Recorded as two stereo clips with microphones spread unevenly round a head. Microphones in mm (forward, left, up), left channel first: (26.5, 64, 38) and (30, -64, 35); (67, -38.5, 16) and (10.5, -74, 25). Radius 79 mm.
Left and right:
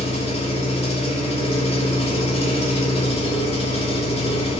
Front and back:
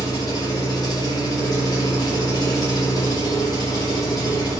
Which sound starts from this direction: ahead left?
An engine running, at 0.0 s.